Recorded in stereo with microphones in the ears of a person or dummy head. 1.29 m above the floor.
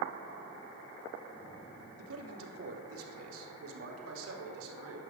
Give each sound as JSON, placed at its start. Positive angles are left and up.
{"t": 2.0, "sound": "a man speaking", "side_deg": -80, "distance_m": 3.0}